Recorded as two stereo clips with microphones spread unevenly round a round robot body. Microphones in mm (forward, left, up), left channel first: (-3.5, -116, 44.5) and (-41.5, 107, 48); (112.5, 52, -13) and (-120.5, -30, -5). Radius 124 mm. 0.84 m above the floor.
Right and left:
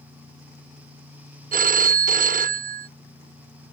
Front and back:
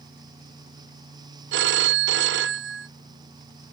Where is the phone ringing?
155° left.